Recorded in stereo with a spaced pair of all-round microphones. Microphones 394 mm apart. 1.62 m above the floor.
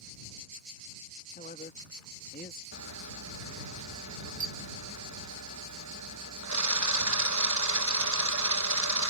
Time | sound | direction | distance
1.4 | a man speaking | 20° left (ahead or behind) | ?
2.7 | a camera shutter | 45° right (ahead or behind) | ?